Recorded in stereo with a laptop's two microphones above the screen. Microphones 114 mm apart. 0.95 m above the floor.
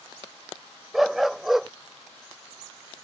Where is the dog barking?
Centre (ahead or behind).